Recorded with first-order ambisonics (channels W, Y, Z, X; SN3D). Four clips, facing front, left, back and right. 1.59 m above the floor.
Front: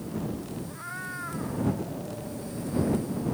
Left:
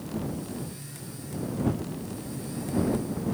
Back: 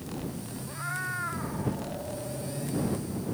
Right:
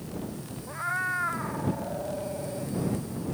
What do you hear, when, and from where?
0.7 s a cat meowing: 100° right